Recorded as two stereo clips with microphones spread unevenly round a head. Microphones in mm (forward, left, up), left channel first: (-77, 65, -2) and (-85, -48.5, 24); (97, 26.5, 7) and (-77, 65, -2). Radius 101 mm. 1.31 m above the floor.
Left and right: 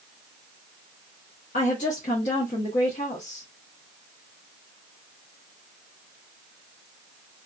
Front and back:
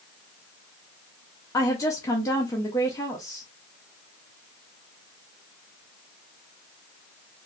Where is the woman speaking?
60° left, 0.7 m.